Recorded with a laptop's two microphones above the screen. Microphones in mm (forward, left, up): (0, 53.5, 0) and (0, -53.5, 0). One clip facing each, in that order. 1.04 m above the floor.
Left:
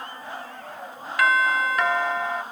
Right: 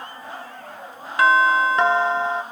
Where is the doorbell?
30° right (ahead or behind), 0.7 m.